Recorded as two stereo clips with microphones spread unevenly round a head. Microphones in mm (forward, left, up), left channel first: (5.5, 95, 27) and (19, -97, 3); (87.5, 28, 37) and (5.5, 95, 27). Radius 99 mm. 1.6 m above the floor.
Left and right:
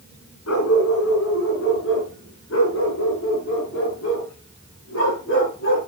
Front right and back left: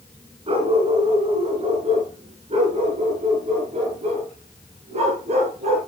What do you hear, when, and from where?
0.5 s a dog barking: 110° left, 6 m; by 5.8 s 125° left, 11.5 m